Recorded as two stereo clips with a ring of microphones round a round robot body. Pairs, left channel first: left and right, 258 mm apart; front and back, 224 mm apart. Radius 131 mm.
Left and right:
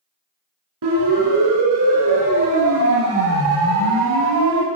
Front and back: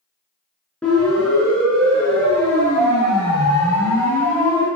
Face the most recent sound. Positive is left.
turn(degrees=-80)